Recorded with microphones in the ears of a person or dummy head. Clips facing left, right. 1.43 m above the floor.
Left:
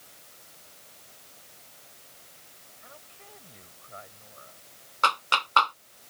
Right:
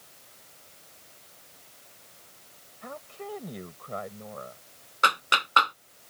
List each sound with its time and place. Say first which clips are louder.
2.8 s a woman speaking: right 14 dB; 65° right (ahead or behind)
5.0 s a clap: even; 20° right (ahead or behind)